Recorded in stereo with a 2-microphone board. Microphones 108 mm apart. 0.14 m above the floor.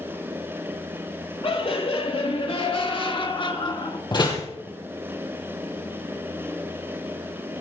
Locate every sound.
1.4 s laughter: 60° left (ahead or behind), 3.5 m; by 4.0 s 45° left (ahead or behind), 1.6 m
4.1 s a door slam: 45° left (ahead or behind), 2.5 m